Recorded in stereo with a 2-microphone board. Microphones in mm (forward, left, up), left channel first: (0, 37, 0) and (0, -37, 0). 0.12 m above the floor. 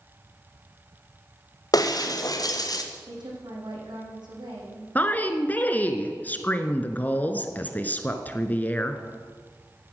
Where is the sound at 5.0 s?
25° left (ahead or behind), 1.2 m.